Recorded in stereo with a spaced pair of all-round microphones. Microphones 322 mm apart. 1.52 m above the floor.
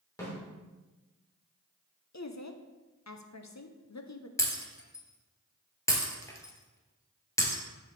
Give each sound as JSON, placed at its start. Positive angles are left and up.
{"t": 0.2, "sound": "a snare drum", "side_deg": 10, "distance_m": 3.5}
{"t": 2.1, "sound": "a woman speaking", "side_deg": 55, "distance_m": 0.7}
{"t": 4.4, "sound": "breaking glass", "side_deg": 10, "distance_m": 1.7}